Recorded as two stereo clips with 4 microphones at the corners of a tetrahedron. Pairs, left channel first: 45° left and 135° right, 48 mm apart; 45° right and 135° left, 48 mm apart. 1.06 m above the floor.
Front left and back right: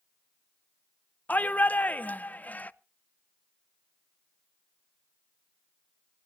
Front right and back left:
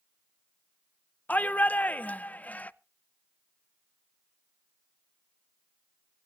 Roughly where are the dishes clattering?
I don't hear dishes clattering.